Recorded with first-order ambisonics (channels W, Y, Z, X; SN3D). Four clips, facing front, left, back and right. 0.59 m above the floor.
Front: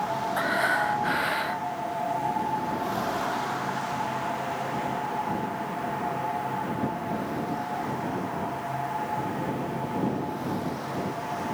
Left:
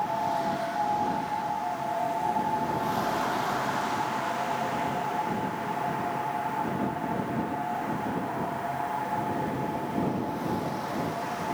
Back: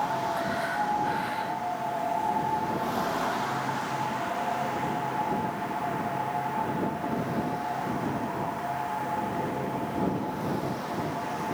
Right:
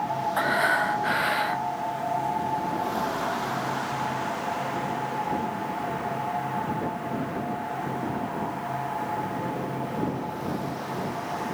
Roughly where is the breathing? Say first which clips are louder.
Right 6 dB, front 4 dB; ahead right.